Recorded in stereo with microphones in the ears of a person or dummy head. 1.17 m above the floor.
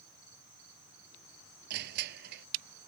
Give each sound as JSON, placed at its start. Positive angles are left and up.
{"t": 1.7, "sound": "crushing", "side_deg": -55}